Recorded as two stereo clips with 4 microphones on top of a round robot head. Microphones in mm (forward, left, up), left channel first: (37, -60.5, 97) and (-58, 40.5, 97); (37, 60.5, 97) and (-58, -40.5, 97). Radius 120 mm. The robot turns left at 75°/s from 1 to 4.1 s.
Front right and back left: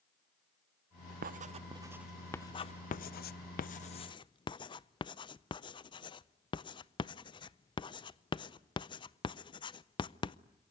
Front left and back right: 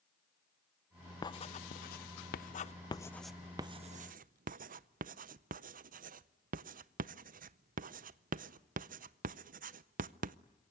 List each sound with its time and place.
1.2 s writing: 110° left, 0.6 m; by 10.4 s 105° right, 0.6 m